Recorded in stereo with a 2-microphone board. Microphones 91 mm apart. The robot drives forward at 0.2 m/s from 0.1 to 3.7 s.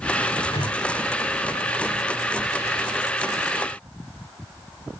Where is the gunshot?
85° left, 4.5 m.